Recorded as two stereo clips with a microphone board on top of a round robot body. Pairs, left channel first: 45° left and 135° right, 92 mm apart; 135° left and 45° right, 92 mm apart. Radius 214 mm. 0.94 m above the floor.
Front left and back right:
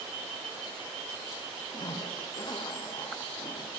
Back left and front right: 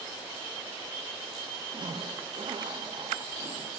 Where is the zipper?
5° right, 1.0 m.